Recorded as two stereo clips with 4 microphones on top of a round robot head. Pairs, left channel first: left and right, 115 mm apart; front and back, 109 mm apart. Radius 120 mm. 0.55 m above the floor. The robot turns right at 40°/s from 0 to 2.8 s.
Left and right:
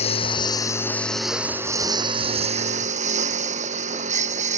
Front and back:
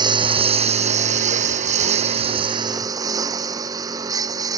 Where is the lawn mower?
130° left; by 4.6 s 115° right.